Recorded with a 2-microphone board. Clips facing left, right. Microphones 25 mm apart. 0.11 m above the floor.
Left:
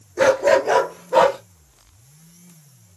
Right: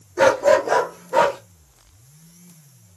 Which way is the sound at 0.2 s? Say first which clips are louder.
Even; 5° right (ahead or behind).